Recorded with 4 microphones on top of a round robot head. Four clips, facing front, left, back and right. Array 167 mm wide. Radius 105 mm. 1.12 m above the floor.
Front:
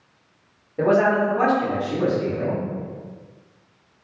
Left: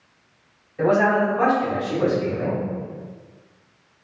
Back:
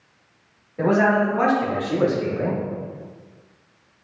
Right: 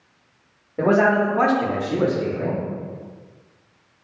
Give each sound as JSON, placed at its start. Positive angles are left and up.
{"t": 0.8, "sound": "a man speaking", "azimuth_deg": -70, "distance_m": 2.0}